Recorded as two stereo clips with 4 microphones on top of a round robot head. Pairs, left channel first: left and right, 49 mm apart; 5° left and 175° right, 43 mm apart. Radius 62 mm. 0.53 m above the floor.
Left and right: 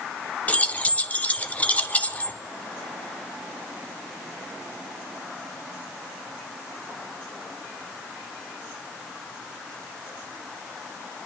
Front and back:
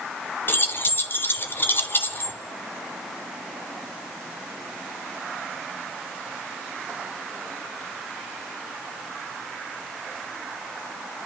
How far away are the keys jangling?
About 0.9 m.